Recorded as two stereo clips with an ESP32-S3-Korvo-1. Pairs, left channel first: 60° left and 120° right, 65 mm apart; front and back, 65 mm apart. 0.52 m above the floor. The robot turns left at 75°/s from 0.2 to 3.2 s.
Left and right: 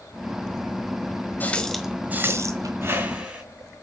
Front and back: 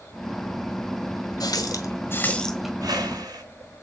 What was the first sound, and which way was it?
A running tap, straight ahead.